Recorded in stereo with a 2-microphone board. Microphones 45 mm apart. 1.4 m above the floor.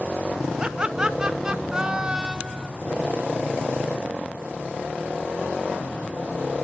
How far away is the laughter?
About 1.0 m.